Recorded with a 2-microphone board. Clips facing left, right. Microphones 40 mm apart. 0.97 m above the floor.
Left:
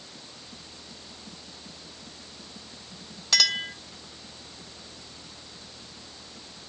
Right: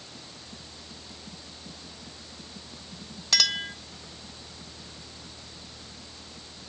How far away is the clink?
About 1.4 m.